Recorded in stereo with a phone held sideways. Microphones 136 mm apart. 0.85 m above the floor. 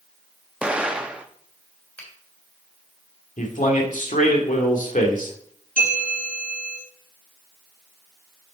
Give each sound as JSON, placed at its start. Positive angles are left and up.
{"t": 0.6, "sound": "an explosion", "side_deg": -5, "distance_m": 0.6}
{"t": 2.0, "sound": "a finger snap", "side_deg": 10, "distance_m": 3.5}
{"t": 3.4, "sound": "a man speaking", "side_deg": 70, "distance_m": 1.9}
{"t": 5.8, "sound": "a bell", "side_deg": 80, "distance_m": 4.5}